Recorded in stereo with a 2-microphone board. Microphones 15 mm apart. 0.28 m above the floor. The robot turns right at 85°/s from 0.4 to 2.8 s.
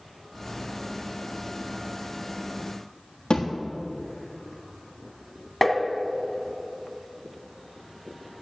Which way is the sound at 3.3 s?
70° left (ahead or behind).